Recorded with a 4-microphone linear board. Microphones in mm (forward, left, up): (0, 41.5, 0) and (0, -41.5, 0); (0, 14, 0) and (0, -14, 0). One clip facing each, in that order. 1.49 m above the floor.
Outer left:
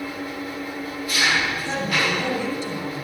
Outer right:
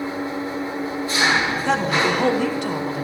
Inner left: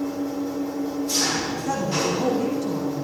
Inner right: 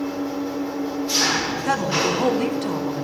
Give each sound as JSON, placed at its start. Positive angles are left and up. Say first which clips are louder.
{"t": 0.0, "sound": "an engine running", "louder": "outer right 4 dB, inner right 1 dB", "side_deg": -30, "distance_m": 1.4}
{"t": 1.6, "sound": "a woman speaking", "louder": "outer right 5 dB, inner right 3 dB", "side_deg": -85, "distance_m": 4.0}